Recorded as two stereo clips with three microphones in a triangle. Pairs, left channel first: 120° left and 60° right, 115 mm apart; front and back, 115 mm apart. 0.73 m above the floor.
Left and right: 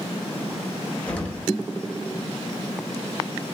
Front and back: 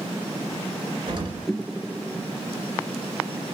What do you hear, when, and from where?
1.1 s an explosion: 165° right, 0.7 m